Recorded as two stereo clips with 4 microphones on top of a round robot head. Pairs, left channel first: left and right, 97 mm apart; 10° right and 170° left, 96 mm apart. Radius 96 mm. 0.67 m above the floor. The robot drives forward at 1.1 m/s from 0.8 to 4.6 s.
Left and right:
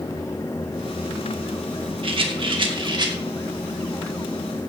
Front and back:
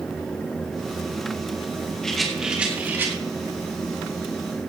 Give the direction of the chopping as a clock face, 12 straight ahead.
I don't hear chopping.